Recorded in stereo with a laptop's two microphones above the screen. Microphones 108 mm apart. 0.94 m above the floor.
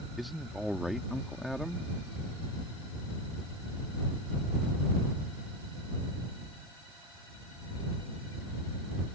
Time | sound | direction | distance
0.2 | a man speaking | centre (ahead or behind) | ?